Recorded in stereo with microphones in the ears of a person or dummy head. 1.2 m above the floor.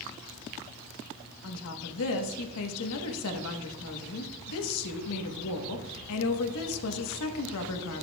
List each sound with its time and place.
1.4 s a woman speaking: 80° left, 1.1 m